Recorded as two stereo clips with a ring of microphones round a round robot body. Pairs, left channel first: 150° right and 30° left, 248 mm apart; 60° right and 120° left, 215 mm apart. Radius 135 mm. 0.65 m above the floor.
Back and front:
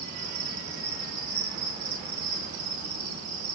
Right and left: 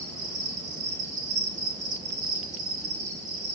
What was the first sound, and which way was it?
An insect, 65° left.